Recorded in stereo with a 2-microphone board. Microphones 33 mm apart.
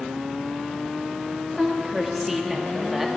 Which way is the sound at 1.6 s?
10° right (ahead or behind).